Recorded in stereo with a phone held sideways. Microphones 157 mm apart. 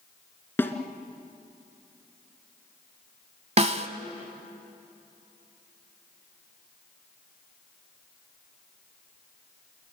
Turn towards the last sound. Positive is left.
turn(degrees=-45)  # may be behind; listen again after turning